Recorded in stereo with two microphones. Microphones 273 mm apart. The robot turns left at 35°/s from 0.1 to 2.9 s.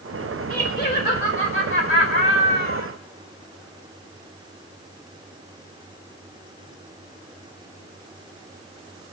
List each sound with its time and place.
0.5 s laughter: 140° left, 1.8 m; by 2.9 s 55° left, 1.8 m